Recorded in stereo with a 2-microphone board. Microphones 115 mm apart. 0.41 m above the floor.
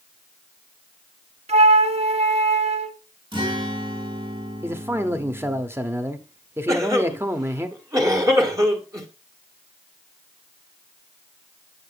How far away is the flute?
About 0.5 m.